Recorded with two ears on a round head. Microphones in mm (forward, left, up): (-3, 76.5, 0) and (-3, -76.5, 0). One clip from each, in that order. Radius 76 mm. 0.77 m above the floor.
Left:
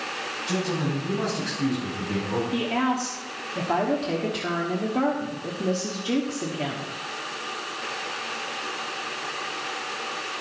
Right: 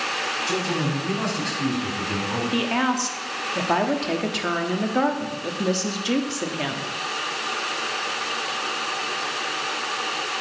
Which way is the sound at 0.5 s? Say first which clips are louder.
Right 3 dB; 65° right (ahead or behind).